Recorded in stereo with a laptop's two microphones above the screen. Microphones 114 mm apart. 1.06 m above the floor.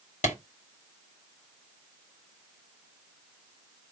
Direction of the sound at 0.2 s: 80° left.